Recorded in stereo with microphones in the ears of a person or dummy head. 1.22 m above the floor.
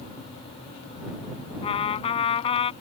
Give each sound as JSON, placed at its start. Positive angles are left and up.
{"t": 1.6, "sound": "a trumpet", "side_deg": 35}